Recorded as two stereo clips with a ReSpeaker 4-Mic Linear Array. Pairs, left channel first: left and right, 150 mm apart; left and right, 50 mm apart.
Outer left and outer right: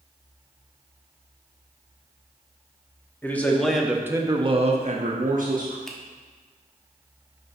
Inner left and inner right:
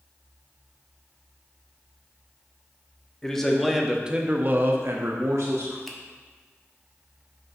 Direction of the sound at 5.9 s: 5° left (ahead or behind).